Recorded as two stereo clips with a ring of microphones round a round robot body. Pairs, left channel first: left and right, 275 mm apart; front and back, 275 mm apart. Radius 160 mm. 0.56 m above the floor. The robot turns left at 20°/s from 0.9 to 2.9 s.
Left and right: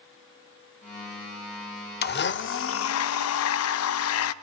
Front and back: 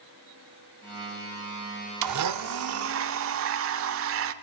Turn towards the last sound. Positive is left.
turn(degrees=130)